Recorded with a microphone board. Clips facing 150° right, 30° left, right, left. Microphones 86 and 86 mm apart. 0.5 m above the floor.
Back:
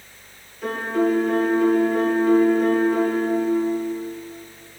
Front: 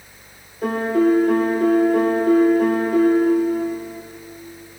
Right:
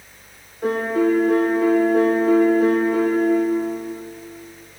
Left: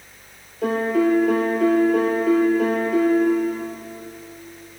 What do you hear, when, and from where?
0.6 s a piano: 80° left, 3 m